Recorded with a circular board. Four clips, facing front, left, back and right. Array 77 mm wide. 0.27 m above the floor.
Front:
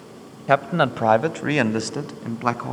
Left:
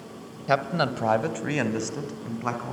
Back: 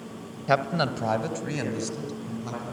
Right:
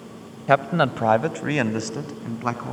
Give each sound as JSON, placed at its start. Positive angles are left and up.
{"t": 0.5, "sound": "a man speaking", "azimuth_deg": -55, "distance_m": 1.0}